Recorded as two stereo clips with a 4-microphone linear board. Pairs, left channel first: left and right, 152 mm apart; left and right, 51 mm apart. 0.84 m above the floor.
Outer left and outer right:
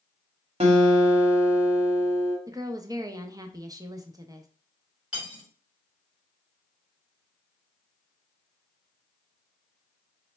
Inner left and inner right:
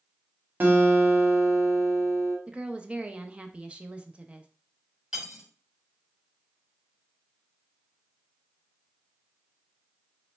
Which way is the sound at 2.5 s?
25° right (ahead or behind).